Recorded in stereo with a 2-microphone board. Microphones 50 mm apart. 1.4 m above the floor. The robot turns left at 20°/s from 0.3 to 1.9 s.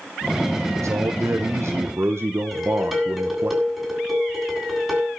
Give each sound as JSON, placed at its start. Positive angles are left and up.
{"t": 0.8, "sound": "a man speaking", "side_deg": -80, "distance_m": 1.2}
{"t": 2.5, "sound": "dishes clattering", "side_deg": -5, "distance_m": 8.0}